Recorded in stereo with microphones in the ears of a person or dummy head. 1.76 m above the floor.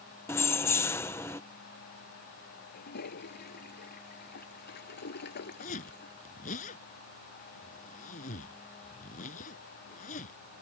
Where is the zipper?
45° left (ahead or behind).